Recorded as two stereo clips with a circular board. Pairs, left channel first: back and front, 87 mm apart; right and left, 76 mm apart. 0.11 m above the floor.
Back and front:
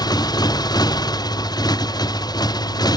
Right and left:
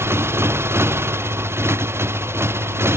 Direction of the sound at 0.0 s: 145° left.